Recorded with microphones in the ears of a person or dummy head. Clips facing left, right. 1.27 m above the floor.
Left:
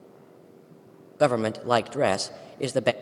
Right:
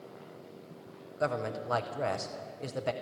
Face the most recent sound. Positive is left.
turn(degrees=75)  # may be behind; listen again after turning